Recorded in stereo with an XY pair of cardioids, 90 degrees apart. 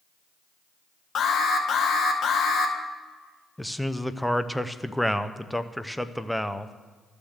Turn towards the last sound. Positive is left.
turn(degrees=0)